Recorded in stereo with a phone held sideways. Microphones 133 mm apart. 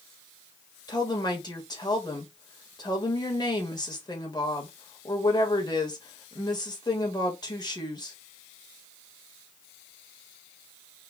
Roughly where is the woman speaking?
Left.